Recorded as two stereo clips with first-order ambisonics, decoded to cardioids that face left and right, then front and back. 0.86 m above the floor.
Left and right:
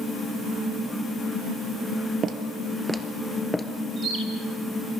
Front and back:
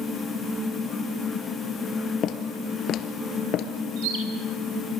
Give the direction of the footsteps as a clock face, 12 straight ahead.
1 o'clock.